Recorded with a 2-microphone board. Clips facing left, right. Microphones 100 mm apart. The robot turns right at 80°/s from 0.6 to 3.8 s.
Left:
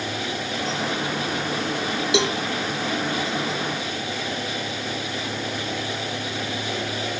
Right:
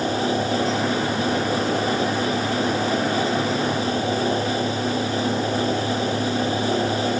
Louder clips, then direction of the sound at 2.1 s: Left 1 dB; 85° left.